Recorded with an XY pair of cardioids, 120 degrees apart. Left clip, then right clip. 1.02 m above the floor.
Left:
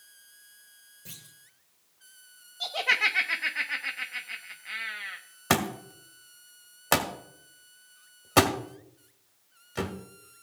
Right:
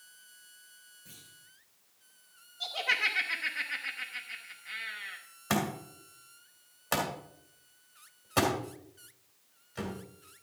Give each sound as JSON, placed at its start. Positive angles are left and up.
{"t": 1.1, "sound": "a clunk", "azimuth_deg": 70, "distance_m": 2.5}
{"t": 2.6, "sound": "laughter", "azimuth_deg": 35, "distance_m": 0.8}
{"t": 5.5, "sound": "a thud", "azimuth_deg": 50, "distance_m": 1.7}